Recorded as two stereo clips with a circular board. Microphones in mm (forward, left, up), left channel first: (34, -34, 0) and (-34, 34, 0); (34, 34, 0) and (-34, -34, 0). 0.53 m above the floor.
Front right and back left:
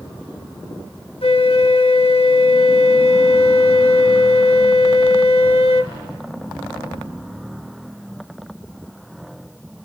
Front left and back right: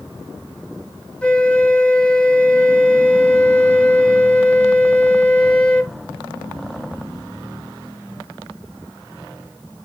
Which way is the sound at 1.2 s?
35° right.